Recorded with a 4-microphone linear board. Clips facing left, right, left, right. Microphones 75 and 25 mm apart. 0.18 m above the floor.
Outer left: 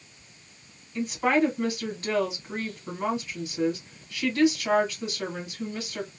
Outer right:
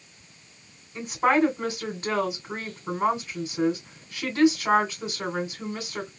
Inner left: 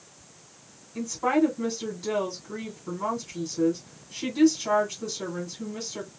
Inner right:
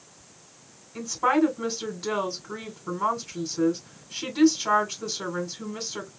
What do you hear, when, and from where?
0.9 s a woman speaking: 25° right (ahead or behind), 1.4 m